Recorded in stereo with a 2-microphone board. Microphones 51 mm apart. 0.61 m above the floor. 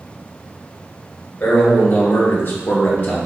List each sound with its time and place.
1.4 s a man speaking: 35° left (ahead or behind), 1.4 m; by 3.2 s 40° left (ahead or behind), 0.7 m